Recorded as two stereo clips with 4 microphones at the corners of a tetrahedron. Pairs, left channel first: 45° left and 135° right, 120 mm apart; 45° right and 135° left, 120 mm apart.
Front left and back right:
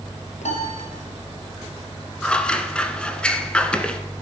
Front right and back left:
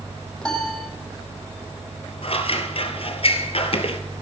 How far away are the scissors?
About 1.1 m.